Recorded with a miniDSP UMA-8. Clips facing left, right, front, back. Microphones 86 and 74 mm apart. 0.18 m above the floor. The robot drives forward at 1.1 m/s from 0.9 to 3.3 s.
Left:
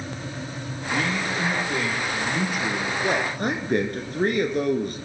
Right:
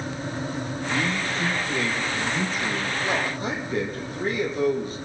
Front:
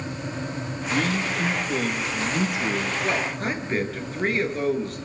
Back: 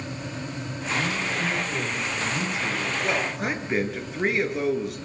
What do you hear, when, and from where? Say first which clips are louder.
0.9 s a man speaking: left 2 dB, front 2 dB; 5° left, 6.5 m; by 2.9 s 10° left, 4.5 m
3.0 s a man speaking: left 4 dB, even; 90° left, 3.5 m; by 5.0 s 95° left, 3.5 m